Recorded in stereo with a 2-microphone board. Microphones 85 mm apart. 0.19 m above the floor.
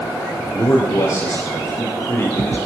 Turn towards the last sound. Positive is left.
turn(degrees=30)  # may be behind; listen again after turning